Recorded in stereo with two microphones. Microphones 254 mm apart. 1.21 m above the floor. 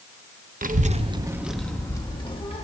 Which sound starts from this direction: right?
A child speaking, at 0.6 s.